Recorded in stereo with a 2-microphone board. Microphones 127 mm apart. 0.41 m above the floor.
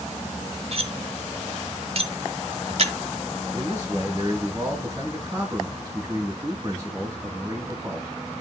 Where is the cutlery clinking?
55° right (ahead or behind), 1.1 m.